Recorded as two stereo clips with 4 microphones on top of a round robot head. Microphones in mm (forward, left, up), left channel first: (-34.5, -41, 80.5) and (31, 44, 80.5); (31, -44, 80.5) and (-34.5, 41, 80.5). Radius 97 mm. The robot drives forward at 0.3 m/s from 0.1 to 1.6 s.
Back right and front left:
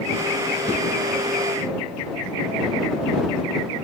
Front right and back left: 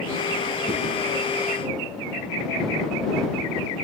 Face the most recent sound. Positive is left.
turn(degrees=-110)